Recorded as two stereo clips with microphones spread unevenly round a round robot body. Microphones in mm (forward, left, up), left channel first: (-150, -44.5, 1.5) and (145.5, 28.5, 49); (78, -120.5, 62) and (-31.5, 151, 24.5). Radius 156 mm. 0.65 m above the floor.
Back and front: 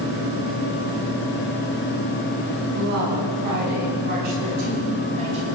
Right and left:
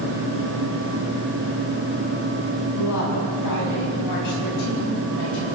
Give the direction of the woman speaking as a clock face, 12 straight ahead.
1 o'clock.